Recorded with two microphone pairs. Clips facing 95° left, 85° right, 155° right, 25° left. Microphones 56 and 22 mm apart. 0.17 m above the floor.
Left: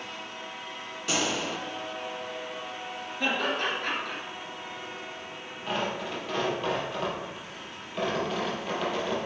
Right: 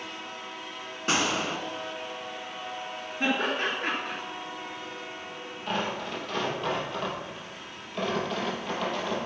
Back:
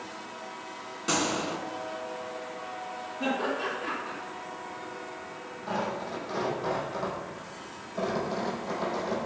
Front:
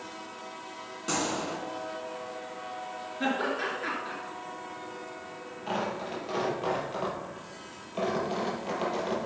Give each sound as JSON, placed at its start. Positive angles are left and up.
{"t": 1.1, "sound": "a gunshot", "azimuth_deg": -95, "distance_m": 1.3}
{"t": 3.2, "sound": "laughter", "azimuth_deg": -15, "distance_m": 3.0}
{"t": 5.7, "sound": "tearing paper", "azimuth_deg": 15, "distance_m": 3.5}